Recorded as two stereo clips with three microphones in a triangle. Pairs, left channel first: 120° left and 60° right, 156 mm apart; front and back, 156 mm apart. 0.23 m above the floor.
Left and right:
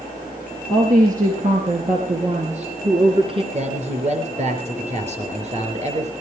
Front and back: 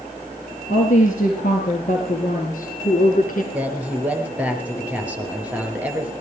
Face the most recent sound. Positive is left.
turn(degrees=-100)